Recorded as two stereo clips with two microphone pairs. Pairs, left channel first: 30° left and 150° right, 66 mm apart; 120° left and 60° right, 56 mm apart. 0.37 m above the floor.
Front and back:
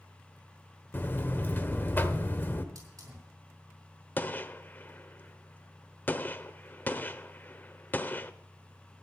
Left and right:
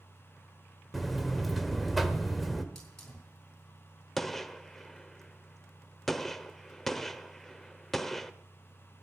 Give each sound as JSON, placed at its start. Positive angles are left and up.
{"t": 0.9, "sound": "a buzzer", "azimuth_deg": 25, "distance_m": 1.0}
{"t": 2.8, "sound": "a hiss", "azimuth_deg": -160, "distance_m": 5.0}
{"t": 4.2, "sound": "a gunshot", "azimuth_deg": 30, "distance_m": 0.7}